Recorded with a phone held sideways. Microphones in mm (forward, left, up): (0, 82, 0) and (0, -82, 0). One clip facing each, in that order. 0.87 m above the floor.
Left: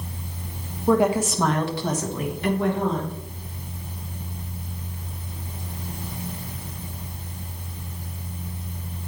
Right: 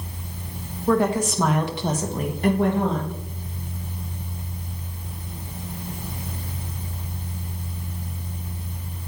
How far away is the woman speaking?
About 1.3 m.